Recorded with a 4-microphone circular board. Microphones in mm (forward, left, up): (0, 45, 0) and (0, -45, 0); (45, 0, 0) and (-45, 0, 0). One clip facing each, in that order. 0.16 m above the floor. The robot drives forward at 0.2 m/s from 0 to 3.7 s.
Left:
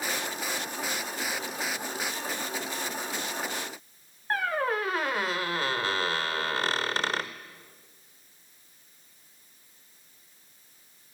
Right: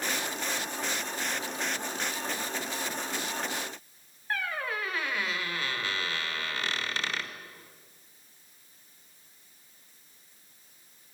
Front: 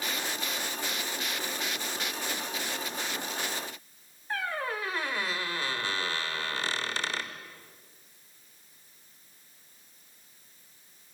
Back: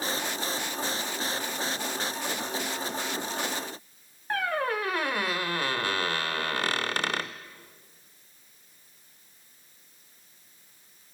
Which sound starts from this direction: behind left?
A squeak, at 4.3 s.